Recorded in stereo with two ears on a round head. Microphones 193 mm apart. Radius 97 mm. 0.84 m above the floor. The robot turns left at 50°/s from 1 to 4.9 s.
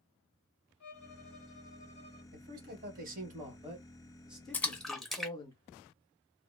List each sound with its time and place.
0.8 s a violin: 85° left, 1.6 m; by 2.2 s 25° left, 1.6 m
2.3 s a man speaking: 75° right, 1.3 m; by 5.5 s 155° left, 1.3 m
4.5 s a splash: 10° left (ahead or behind), 0.6 m; by 6.5 s centre (ahead or behind), 0.6 m